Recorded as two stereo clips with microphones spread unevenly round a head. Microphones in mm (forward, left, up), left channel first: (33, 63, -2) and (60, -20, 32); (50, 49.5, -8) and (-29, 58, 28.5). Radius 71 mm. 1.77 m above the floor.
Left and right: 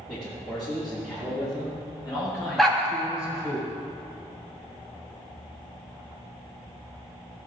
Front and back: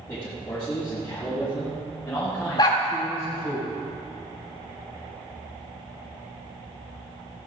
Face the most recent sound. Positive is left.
turn(degrees=-55)